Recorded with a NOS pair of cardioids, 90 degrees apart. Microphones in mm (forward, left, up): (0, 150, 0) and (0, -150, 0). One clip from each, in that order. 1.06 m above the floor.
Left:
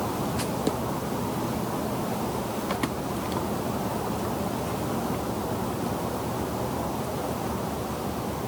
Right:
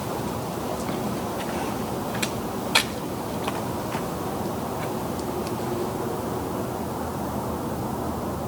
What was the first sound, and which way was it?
Only background noise.